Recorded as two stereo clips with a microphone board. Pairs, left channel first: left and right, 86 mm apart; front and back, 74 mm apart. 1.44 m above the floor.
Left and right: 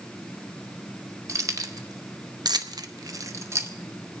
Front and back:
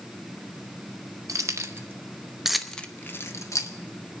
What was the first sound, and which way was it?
Keys jangling, 140° right.